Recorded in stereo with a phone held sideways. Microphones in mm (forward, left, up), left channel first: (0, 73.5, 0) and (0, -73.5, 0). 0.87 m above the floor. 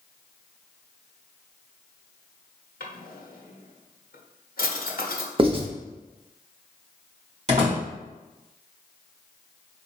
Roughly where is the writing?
Right.